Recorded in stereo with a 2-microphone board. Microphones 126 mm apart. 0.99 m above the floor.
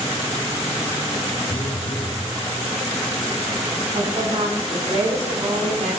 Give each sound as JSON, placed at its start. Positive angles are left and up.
{"t": 1.5, "sound": "a phone buzzing", "side_deg": 40, "distance_m": 1.1}
{"t": 3.9, "sound": "a woman speaking", "side_deg": -70, "distance_m": 7.5}